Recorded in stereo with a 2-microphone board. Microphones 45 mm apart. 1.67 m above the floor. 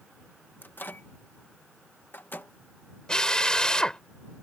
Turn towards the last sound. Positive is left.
turn(degrees=15)  # may be behind; listen again after turning